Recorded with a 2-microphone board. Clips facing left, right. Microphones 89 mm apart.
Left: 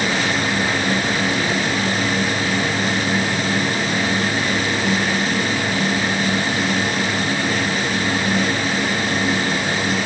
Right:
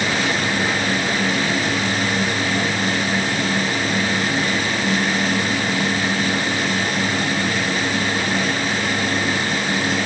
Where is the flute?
I don't hear a flute.